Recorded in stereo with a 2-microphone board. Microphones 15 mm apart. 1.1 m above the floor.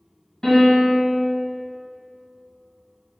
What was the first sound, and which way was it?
A piano, 30° left (ahead or behind).